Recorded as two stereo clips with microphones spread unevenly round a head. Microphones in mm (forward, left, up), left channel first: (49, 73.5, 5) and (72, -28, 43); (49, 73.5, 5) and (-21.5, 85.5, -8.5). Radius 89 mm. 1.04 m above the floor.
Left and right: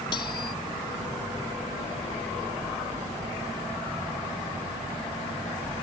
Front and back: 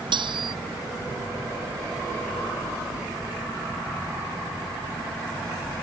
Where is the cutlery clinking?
165° left.